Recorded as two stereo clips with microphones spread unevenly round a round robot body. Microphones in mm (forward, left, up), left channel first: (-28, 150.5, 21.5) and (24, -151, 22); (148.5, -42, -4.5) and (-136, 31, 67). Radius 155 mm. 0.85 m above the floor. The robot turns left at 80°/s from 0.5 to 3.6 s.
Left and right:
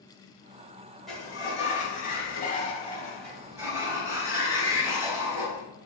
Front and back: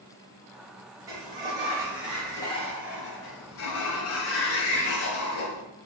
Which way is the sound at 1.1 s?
170° right.